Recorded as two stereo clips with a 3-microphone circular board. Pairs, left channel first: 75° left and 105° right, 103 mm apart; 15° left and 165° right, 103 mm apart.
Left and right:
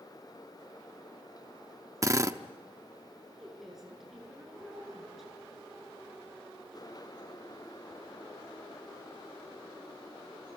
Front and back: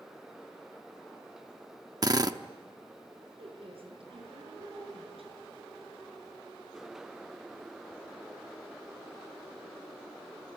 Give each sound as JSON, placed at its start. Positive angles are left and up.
{"t": 2.0, "sound": "a drill", "azimuth_deg": -145, "distance_m": 0.8}
{"t": 3.4, "sound": "a woman speaking", "azimuth_deg": 165, "distance_m": 8.0}